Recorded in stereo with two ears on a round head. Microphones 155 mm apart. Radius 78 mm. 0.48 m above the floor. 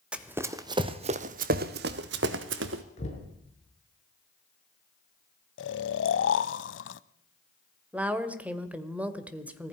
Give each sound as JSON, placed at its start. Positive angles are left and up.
{"t": 0.1, "sound": "running footsteps", "side_deg": -5, "distance_m": 1.4}
{"t": 3.0, "sound": "knocking", "side_deg": 40, "distance_m": 6.0}
{"t": 5.6, "sound": "snoring", "side_deg": 75, "distance_m": 0.7}
{"t": 7.9, "sound": "a woman speaking", "side_deg": -10, "distance_m": 1.7}